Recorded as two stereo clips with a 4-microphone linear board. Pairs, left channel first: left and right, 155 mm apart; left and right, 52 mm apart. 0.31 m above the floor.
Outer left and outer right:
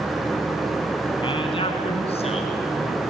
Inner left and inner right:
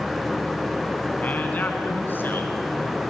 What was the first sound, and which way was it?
A man speaking, 35° left (ahead or behind).